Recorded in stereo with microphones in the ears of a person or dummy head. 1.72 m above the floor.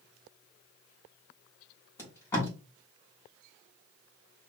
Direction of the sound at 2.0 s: 15° left (ahead or behind).